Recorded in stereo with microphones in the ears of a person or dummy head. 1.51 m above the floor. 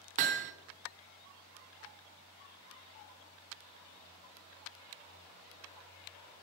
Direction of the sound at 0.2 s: 40° right (ahead or behind).